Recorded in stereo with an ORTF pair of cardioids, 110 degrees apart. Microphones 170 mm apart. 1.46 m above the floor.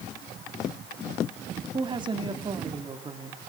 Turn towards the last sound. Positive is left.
turn(degrees=-25)